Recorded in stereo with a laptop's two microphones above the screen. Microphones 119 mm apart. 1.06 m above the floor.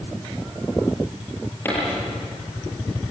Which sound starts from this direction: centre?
A dropped coin, at 1.6 s.